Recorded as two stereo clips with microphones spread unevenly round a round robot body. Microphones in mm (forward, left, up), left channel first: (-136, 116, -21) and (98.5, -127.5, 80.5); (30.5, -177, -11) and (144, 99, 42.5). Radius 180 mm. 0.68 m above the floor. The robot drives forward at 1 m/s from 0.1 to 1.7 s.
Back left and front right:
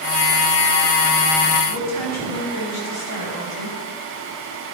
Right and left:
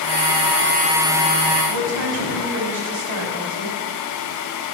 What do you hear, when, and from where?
1.7 s a woman speaking: 95° left, 4 m